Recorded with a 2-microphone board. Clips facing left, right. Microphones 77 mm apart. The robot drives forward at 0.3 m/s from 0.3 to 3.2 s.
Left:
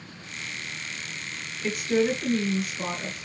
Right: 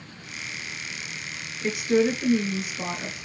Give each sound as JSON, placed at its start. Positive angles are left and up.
{"t": 1.6, "sound": "a woman speaking", "side_deg": -20, "distance_m": 1.6}